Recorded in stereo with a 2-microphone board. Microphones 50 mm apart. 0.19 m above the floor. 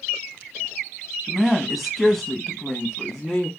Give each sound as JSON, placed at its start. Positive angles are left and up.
{"t": 1.3, "sound": "a woman speaking", "side_deg": -5, "distance_m": 1.1}